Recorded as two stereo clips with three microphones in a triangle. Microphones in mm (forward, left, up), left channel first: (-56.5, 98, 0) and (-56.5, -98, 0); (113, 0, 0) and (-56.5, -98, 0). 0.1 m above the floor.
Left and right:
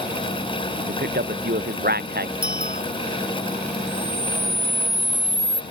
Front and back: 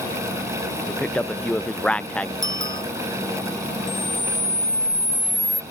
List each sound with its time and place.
0.9 s a man speaking: 55° right
2.4 s a bicycle bell: 130° right
3.9 s a camera shutter: 20° right